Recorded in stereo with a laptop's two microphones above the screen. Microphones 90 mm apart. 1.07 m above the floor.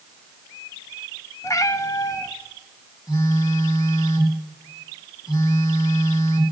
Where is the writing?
I don't hear writing.